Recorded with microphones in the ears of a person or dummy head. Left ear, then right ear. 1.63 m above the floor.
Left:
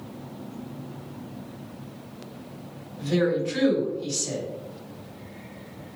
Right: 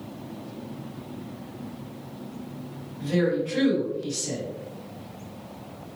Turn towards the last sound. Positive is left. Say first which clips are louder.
# left 1 dB
turn(degrees=80)